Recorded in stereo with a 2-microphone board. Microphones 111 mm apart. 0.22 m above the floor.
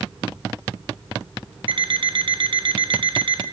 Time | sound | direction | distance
1.7 | an alarm clock | 60° right (ahead or behind) | 0.6 m